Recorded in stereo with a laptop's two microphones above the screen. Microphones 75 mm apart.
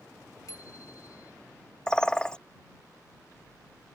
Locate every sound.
0.5 s a bicycle bell: 55° left (ahead or behind)
1.9 s a bird: 15° left (ahead or behind)